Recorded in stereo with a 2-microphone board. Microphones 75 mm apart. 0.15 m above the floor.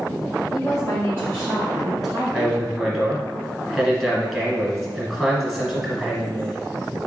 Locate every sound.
0.5 s a woman speaking: 30° left (ahead or behind), 1.7 m; by 3.2 s 20° right (ahead or behind), 1.5 m
2.3 s a man speaking: centre (ahead or behind), 2.5 m